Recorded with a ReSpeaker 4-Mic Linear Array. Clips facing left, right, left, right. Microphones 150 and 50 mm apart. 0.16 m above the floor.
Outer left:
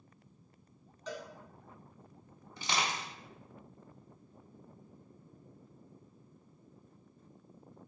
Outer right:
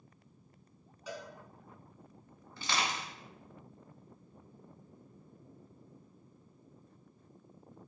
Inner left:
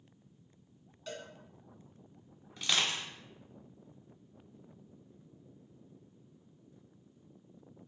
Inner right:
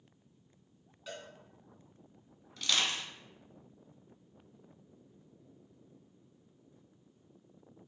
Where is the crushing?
15° left (ahead or behind), 0.9 m.